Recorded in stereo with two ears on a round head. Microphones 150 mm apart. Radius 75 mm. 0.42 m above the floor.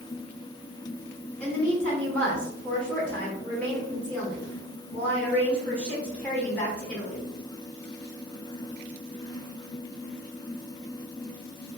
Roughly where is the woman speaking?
Centre.